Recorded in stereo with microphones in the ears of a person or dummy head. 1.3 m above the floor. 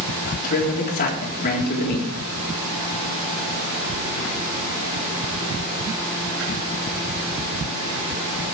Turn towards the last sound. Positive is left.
turn(degrees=45)  # may be behind; listen again after turning